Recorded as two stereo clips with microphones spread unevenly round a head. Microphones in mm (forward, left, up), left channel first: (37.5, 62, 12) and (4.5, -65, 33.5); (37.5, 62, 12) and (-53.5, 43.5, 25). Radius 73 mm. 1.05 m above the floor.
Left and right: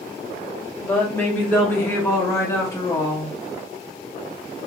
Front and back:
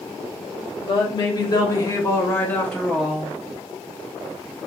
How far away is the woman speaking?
About 1.3 m.